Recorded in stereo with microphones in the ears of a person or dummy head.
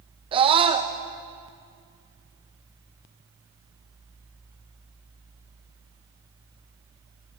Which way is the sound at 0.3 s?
25° right (ahead or behind).